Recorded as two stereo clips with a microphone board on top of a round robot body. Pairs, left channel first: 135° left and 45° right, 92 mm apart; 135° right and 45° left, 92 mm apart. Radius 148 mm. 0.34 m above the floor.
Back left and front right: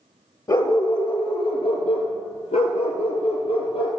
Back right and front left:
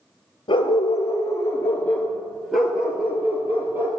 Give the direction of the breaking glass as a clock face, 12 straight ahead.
No breaking glass in this recording.